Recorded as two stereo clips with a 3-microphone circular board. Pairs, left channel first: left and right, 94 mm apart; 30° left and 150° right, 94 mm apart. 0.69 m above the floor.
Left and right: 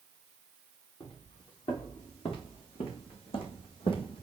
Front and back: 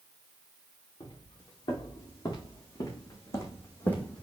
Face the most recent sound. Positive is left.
turn(degrees=110)